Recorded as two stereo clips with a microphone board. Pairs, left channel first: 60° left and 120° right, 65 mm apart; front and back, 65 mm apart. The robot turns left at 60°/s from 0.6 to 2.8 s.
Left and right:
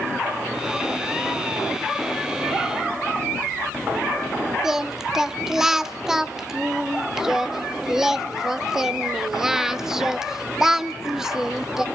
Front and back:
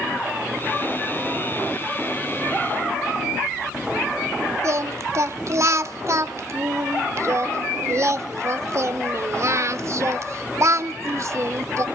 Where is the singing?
155° left, 0.7 m.